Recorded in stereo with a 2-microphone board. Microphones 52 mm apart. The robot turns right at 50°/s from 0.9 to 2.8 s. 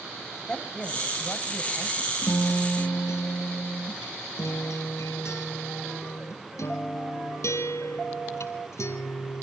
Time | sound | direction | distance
0.5 | a man speaking | 25° left | 1.8 m
2.2 | a guitar | 80° left | 1.8 m